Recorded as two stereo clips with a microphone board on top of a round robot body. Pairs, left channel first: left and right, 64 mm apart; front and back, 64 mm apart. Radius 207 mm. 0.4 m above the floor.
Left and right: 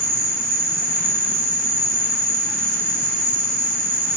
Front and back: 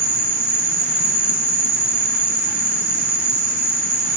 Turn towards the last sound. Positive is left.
turn(degrees=-130)